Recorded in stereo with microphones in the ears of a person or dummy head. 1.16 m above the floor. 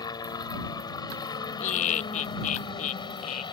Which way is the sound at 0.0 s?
25° left (ahead or behind).